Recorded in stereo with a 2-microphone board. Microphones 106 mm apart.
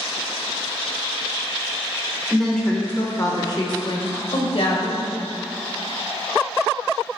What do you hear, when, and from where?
2.3 s a woman speaking: 5° right (ahead or behind), 1.0 m; by 5.0 s 65° left (ahead or behind), 1.7 m